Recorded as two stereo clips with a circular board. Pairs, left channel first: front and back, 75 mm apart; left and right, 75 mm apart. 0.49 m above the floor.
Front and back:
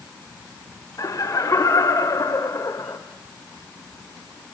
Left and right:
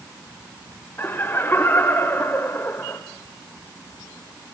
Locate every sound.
1.0 s laughter: 35° left, 1.6 m